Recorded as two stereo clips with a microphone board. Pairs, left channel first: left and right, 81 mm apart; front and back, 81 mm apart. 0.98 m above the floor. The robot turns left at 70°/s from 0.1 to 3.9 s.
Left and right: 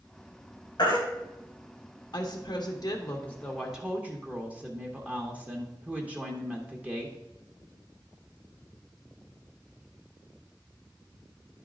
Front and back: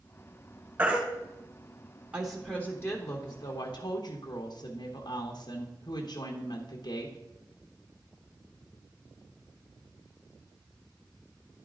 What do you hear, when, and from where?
0.8 s a baby crying: 115° left, 2.5 m; by 1.0 s 100° left, 2.5 m
2.1 s a woman speaking: 105° left, 1.1 m; by 7.2 s 20° right, 1.1 m